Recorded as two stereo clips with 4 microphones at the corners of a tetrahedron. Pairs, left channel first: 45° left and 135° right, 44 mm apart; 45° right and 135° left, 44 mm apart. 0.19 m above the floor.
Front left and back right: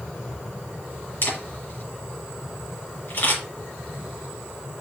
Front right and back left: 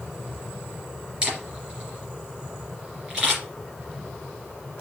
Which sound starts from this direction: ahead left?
A camera shutter, at 1.2 s.